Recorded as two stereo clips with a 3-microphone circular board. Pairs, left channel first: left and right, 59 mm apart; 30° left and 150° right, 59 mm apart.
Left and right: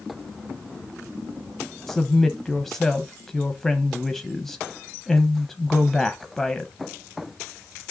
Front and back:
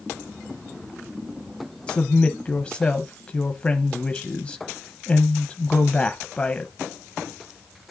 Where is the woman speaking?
20° left, 0.9 m.